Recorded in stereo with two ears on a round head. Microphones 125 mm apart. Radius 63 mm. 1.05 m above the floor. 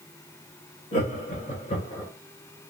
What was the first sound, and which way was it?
Laughter, 50° left (ahead or behind).